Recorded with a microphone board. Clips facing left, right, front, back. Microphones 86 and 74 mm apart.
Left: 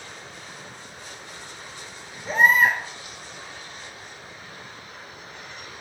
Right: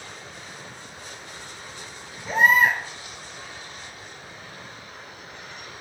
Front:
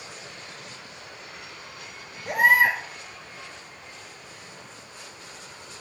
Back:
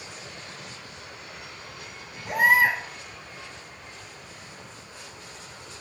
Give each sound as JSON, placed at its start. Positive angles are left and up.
{"t": 2.2, "sound": "a baby crying", "azimuth_deg": 40, "distance_m": 1.6}